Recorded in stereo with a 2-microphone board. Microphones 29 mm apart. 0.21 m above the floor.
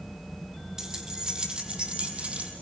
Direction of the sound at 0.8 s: 15° right (ahead or behind).